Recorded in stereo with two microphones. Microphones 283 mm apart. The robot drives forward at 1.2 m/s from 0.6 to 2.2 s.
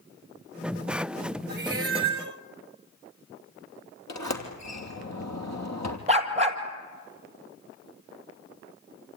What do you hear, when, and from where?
1.5 s a cat meowing: 35° right (ahead or behind), 1.0 m; by 2.4 s 70° right (ahead or behind), 0.6 m
4.1 s a sliding door: 70° left (ahead or behind), 2.5 m
6.1 s a dog barking: 20° right (ahead or behind), 1.9 m